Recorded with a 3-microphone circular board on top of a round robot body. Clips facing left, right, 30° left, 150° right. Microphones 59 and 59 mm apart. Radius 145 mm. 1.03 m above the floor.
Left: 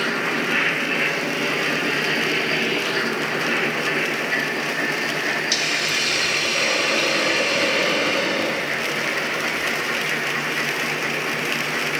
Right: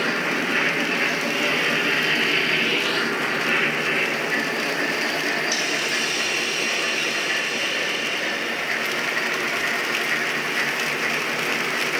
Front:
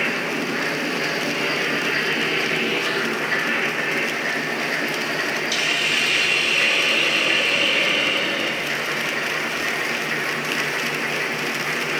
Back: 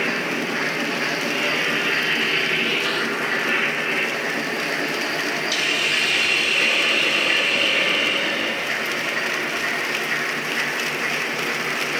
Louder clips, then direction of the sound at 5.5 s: Left 1 dB, even; 120° left.